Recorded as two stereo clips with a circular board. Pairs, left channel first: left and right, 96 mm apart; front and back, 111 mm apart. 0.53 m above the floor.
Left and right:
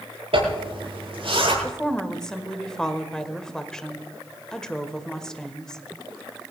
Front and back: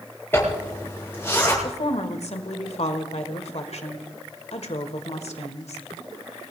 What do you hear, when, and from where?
0.3 s a zipper: 70° right, 8.5 m
1.6 s a woman speaking: 10° left, 1.6 m